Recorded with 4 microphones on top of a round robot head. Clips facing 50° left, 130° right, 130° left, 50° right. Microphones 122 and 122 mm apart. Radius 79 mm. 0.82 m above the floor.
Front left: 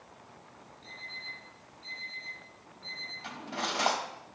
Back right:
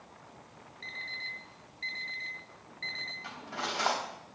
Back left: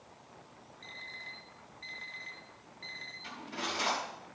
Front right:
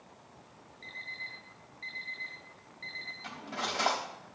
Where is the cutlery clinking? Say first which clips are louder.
Front left 2 dB, front right 2 dB; 15° right, 3.5 m.